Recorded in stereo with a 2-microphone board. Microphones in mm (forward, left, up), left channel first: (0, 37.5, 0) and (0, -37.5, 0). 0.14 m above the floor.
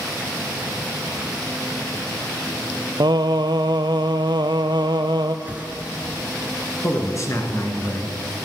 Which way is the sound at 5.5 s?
20° right (ahead or behind).